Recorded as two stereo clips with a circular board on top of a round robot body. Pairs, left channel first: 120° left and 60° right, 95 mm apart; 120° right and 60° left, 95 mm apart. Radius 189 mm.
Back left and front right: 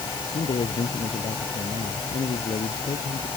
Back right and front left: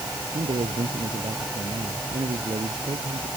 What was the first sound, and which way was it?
A man speaking, 95° left.